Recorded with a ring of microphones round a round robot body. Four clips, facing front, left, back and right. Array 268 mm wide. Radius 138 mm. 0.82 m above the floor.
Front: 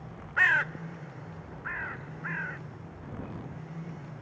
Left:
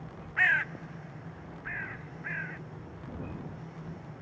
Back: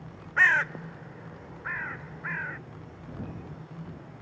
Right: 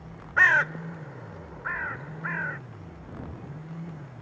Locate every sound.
0.4 s a bird: 95° right